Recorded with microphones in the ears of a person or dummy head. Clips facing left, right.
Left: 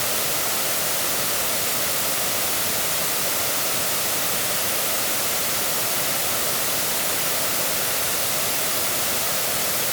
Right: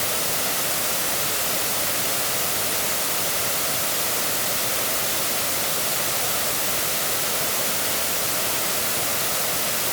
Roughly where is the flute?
I don't hear a flute.